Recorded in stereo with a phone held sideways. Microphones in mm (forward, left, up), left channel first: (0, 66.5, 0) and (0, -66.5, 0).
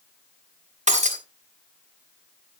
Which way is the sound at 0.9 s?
65° right (ahead or behind).